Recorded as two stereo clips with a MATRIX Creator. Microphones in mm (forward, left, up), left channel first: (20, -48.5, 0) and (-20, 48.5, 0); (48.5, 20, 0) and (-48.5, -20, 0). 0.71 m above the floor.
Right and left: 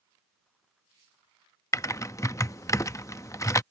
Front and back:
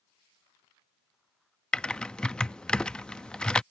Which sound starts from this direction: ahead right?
Typing on a keyboard, at 1.7 s.